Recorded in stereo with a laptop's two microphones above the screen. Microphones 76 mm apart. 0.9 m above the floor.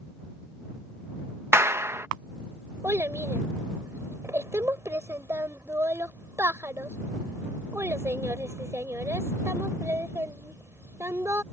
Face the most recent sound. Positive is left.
turn(degrees=-35)  # may be behind; listen again after turning